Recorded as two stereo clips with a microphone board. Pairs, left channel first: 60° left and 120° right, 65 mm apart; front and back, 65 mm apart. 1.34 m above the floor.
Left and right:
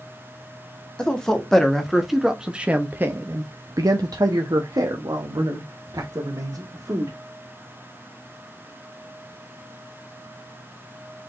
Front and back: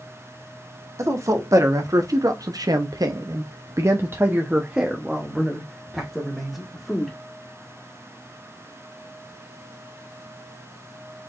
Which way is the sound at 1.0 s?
140° left.